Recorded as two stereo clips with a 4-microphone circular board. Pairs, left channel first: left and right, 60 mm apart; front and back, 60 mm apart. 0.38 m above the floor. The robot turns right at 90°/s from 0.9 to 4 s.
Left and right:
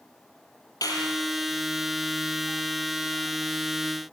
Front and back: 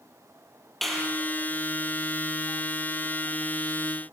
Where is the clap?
85° left, 7 m; by 1.2 s 110° left, 7 m.